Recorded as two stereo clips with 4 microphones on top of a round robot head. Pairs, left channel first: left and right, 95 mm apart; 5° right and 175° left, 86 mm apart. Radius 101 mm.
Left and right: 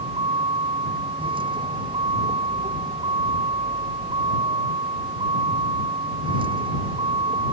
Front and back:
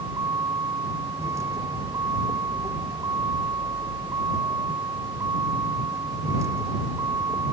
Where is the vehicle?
120° right.